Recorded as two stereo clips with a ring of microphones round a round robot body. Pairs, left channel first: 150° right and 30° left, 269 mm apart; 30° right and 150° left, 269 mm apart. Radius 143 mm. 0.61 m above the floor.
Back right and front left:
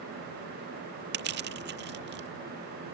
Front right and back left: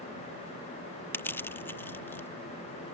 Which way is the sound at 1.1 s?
50° left.